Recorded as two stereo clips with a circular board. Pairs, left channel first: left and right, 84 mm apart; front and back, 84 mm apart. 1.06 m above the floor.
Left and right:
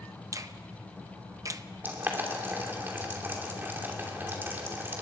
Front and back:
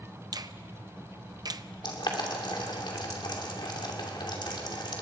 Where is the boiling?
25° right, 2.5 m.